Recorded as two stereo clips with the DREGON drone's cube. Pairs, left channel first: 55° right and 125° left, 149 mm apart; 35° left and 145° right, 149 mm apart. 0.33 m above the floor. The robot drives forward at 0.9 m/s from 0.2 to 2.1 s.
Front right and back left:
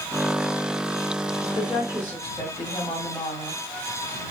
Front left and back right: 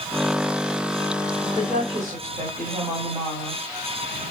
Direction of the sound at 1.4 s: 100° right.